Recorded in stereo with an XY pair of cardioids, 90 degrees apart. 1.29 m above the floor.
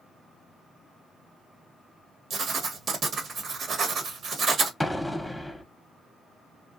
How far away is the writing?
About 1.1 m.